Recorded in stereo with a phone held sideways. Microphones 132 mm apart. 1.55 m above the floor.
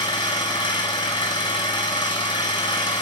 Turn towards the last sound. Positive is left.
turn(degrees=35)  # may be behind; listen again after turning